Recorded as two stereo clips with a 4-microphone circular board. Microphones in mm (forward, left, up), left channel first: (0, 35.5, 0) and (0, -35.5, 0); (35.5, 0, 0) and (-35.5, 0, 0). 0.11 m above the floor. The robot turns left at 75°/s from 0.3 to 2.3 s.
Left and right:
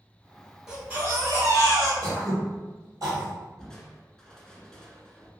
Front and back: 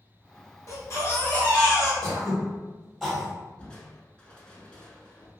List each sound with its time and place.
0.7 s a baby crying: 5° right, 1.3 m; by 1.9 s 100° right, 1.3 m
2.0 s throat clearing: 70° right, 1.8 m; by 3.3 s 90° right, 1.8 m
3.6 s crushing: 30° left, 0.6 m